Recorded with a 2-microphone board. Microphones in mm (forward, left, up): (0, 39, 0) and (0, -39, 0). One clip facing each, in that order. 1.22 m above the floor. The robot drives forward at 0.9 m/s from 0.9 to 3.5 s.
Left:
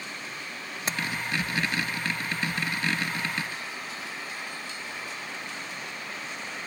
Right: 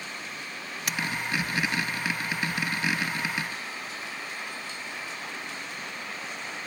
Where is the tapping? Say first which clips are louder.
Left 1 dB; 30° left (ahead or behind).